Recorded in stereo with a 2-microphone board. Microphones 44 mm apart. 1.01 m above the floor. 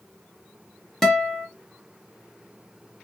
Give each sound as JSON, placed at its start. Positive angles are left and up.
{"t": 1.0, "sound": "a guitar", "side_deg": 10, "distance_m": 0.8}